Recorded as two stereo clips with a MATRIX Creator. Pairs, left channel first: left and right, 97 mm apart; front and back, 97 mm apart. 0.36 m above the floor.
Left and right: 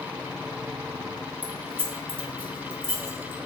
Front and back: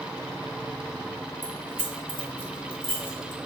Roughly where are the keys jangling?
Ahead right.